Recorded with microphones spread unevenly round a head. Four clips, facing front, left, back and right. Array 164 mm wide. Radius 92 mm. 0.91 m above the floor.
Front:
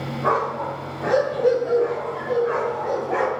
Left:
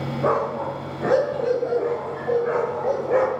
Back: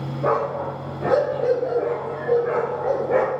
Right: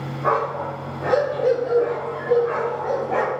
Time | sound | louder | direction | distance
0.2 | a dog barking | right 1 dB, even | 130° left | 9.5 m